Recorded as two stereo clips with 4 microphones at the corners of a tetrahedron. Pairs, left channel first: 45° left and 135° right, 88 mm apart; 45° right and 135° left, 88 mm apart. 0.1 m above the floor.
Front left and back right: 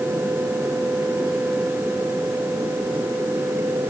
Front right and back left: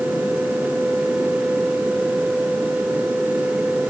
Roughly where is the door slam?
I don't hear a door slam.